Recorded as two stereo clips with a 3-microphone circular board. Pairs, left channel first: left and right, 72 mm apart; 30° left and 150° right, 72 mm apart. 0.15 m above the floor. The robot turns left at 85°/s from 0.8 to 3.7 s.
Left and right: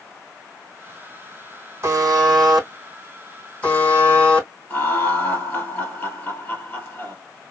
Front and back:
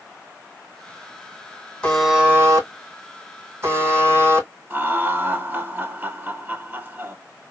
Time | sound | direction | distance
1.8 | a buzzer | 45° right | 3 m
4.7 | laughter | 145° left | 3 m